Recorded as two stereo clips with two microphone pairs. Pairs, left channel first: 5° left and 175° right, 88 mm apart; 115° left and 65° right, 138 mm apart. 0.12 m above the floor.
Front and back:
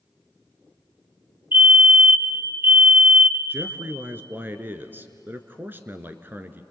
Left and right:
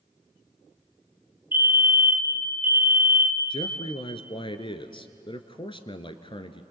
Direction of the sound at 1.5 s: 130° right.